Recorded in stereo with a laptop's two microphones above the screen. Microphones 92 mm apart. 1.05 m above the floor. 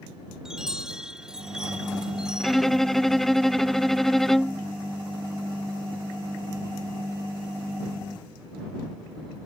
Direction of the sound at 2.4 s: 5° left (ahead or behind).